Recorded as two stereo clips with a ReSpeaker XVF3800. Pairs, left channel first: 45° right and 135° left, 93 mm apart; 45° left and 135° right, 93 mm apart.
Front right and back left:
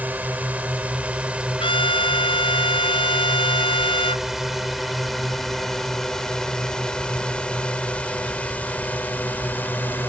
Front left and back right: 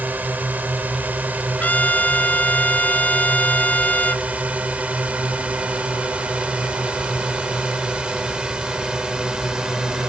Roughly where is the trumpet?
Ahead right.